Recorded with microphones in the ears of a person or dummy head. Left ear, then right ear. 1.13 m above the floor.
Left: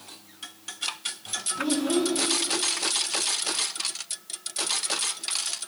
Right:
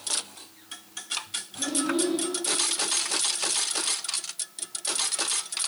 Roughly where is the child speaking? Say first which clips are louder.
Left 1 dB; left.